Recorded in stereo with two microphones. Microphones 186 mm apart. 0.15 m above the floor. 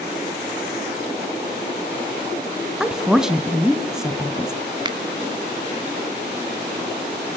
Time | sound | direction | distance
2.8 | a woman speaking | 5° right (ahead or behind) | 1.4 m
4.8 | a finger snap | 25° right (ahead or behind) | 1.0 m